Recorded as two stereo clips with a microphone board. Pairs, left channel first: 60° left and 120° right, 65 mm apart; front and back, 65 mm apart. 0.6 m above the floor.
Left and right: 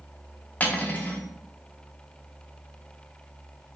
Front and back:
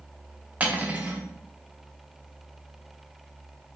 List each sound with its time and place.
0.6 s cutlery clinking: 120° left, 0.6 m